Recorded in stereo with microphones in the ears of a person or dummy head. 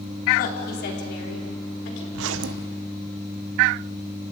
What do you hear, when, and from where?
0.4 s a woman speaking: 50° left (ahead or behind), 4 m; by 2.0 s 80° left, 5.5 m
2.1 s a zipper: 75° right (ahead or behind), 1.1 m